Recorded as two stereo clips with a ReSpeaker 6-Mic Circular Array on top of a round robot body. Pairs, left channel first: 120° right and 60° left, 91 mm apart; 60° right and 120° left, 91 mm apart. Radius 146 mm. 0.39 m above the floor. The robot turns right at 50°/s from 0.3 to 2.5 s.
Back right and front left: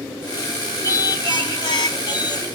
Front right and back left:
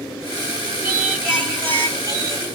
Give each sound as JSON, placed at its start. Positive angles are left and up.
{"t": 0.8, "sound": "singing", "azimuth_deg": -160, "distance_m": 2.5}